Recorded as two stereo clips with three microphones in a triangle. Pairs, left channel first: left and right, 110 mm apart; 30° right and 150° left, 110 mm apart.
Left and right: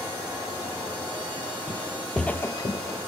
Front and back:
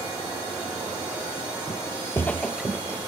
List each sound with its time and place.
1.7 s footsteps: 35° right, 1.0 m; by 3.0 s 85° left, 1.2 m